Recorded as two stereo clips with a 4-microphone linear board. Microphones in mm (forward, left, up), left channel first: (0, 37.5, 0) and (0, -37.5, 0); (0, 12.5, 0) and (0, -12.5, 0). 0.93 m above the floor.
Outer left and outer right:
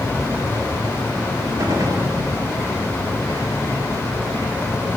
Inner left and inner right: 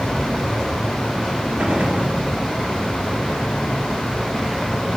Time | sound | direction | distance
1.6 | a gunshot | 55° right (ahead or behind) | 2.5 m